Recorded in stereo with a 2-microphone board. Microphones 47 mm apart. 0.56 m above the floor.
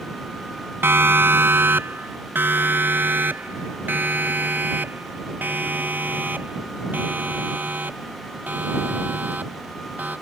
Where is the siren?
55° right (ahead or behind); by 10.1 s 40° right (ahead or behind).